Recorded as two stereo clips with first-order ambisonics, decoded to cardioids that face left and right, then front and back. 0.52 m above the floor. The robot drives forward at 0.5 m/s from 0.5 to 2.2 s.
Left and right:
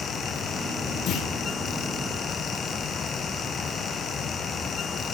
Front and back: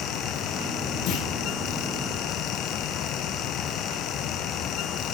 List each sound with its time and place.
1.1 s a clunk: 45° left, 5.5 m